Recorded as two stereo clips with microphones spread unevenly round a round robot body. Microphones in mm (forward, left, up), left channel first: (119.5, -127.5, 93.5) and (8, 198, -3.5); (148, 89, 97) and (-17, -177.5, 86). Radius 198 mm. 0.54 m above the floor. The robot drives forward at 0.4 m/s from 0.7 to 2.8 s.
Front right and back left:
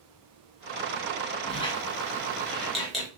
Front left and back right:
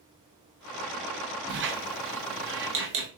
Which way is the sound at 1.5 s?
155° right.